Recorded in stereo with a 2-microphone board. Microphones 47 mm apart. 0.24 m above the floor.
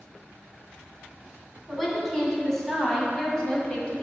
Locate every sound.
1.7 s a woman speaking: centre (ahead or behind), 2.5 m; by 4.0 s 20° left (ahead or behind), 1.5 m